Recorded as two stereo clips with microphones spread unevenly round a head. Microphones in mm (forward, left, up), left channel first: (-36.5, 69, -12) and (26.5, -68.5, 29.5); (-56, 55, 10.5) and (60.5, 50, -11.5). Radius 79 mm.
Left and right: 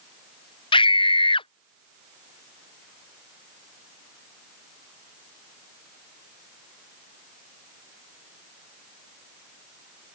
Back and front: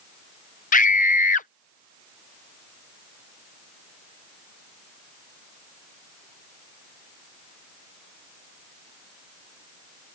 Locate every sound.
0.7 s a scream: 165° left